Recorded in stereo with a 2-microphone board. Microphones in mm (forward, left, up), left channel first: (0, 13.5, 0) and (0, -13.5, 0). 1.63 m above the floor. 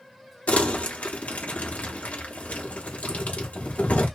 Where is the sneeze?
I don't hear a sneeze.